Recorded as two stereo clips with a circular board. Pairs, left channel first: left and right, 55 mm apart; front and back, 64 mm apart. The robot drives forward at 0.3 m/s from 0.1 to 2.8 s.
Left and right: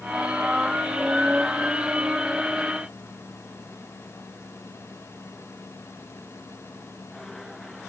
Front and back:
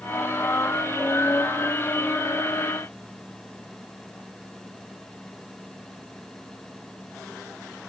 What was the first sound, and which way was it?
Only background noise.